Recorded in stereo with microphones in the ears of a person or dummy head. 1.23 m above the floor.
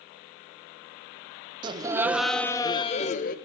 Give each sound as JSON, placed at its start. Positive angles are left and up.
{"t": 1.6, "sound": "laughter", "side_deg": -35, "distance_m": 0.9}